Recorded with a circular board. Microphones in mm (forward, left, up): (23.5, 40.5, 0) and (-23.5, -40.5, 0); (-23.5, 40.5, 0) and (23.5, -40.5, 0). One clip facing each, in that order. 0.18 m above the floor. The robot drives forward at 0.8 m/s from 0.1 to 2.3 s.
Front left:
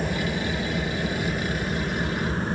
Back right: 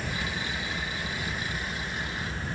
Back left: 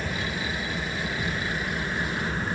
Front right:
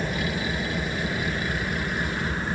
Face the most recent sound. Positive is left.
turn(degrees=30)